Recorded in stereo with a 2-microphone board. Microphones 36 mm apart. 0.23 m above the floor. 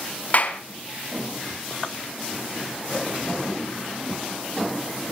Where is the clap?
50° left (ahead or behind), 1.9 m.